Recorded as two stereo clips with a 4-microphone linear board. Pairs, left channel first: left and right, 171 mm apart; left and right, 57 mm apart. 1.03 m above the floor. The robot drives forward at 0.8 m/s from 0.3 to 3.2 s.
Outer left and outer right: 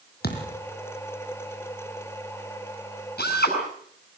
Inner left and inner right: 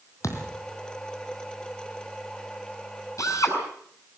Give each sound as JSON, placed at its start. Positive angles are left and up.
{"t": 0.2, "sound": "a thud", "side_deg": 65, "distance_m": 4.0}
{"t": 3.2, "sound": "a drill", "side_deg": 65, "distance_m": 6.5}